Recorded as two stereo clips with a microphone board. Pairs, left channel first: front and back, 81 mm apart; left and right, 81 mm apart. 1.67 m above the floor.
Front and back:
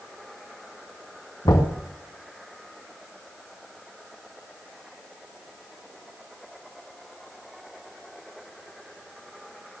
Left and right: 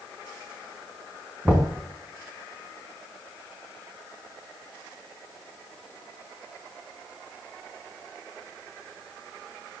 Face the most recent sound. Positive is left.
turn(degrees=-15)